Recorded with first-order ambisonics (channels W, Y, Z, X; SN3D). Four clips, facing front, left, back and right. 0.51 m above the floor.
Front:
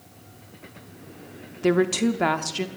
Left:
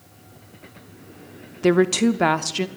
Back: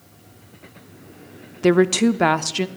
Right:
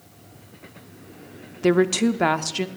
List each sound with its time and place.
1.6 s a woman speaking: 165° left, 0.6 m